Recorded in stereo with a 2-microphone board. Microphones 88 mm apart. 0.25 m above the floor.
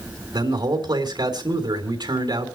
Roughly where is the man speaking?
Right.